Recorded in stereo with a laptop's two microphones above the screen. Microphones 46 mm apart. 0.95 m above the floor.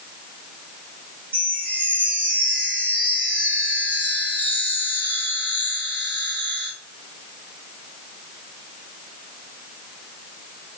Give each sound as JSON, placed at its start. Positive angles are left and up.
{"t": 1.3, "sound": "a chime", "side_deg": 25, "distance_m": 1.7}